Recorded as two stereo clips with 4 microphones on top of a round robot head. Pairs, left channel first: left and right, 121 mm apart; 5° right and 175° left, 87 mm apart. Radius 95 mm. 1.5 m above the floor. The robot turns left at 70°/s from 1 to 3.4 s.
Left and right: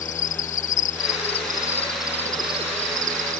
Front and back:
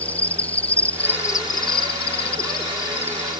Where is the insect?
70° left; by 3.4 s 100° right.